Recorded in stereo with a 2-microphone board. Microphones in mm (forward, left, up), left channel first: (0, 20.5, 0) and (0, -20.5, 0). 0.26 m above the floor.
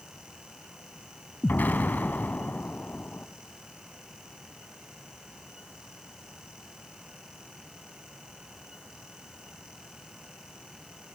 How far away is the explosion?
About 1.2 m.